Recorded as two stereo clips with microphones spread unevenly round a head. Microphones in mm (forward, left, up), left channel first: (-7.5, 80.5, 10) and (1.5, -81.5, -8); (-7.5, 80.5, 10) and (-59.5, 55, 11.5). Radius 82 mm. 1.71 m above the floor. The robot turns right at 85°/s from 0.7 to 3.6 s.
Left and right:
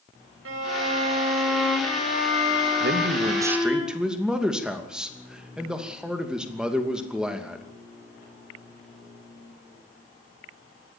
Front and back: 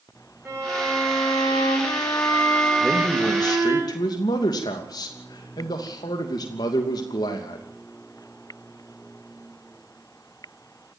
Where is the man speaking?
70° right, 2.5 m; by 7.7 s straight ahead, 2.5 m.